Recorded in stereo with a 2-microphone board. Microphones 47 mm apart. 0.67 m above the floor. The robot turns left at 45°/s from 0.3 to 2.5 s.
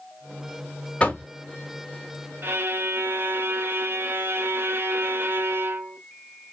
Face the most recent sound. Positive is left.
turn(degrees=-50)  # may be behind; listen again after turning